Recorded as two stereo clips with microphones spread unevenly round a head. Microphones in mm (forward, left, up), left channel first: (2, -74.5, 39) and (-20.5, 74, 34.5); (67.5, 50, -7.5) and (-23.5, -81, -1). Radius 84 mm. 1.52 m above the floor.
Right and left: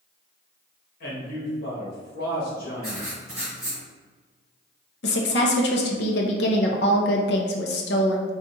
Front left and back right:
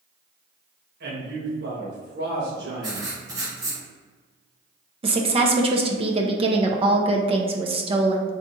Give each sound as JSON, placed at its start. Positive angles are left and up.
{"t": 1.0, "sound": "a man speaking", "azimuth_deg": -105, "distance_m": 1.8}
{"t": 2.8, "sound": "writing", "azimuth_deg": -175, "distance_m": 1.8}
{"t": 5.0, "sound": "a woman speaking", "azimuth_deg": -75, "distance_m": 0.6}